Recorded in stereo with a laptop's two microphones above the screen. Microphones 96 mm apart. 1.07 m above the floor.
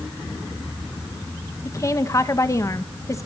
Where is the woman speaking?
30° left (ahead or behind), 1.2 m.